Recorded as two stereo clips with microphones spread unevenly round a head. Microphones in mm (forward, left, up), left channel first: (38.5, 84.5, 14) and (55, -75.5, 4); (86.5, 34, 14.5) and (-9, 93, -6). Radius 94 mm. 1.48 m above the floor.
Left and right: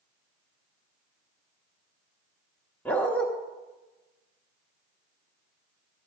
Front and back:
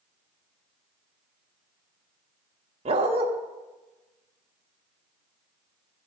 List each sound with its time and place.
2.9 s a dog barking: 170° left, 1.0 m